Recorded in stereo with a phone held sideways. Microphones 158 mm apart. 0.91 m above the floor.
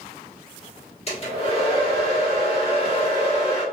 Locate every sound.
1.1 s a hair dryer: 40° left (ahead or behind), 1.2 m